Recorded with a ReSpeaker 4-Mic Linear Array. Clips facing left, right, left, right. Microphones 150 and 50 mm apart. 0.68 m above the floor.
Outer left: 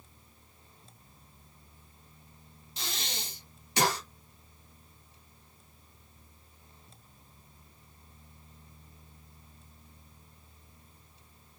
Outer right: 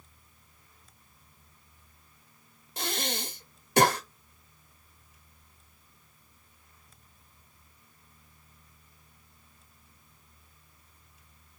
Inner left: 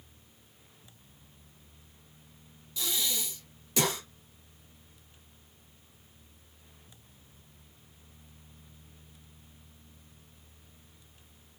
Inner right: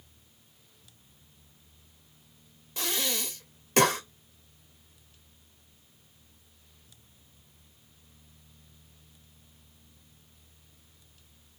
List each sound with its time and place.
2.8 s breathing: 50° right (ahead or behind), 1.0 m